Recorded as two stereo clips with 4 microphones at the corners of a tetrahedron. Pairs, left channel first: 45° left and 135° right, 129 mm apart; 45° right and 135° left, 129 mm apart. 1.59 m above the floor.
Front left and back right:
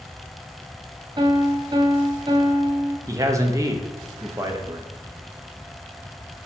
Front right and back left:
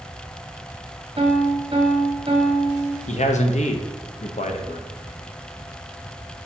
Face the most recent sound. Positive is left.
turn(degrees=-70)